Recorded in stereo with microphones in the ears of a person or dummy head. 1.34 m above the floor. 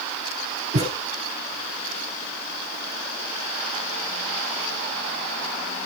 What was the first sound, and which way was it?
A thud, 35° right (ahead or behind).